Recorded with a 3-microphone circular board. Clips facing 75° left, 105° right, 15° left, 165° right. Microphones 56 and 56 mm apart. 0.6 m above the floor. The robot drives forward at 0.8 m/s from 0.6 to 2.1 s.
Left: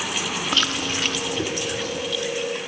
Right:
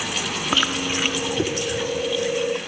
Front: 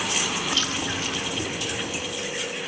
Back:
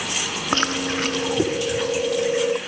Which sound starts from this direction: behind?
Chewing, at 0.5 s.